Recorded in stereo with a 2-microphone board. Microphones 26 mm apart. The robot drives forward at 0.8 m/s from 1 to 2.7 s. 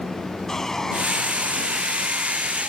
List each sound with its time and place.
0.5 s sawing: 20° left (ahead or behind); by 2.7 s 15° left (ahead or behind)